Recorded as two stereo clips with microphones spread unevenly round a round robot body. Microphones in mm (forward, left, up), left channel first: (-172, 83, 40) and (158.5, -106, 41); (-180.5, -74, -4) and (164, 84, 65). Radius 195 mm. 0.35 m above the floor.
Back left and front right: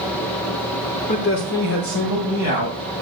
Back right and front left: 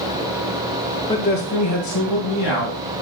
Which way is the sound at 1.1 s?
Straight behind.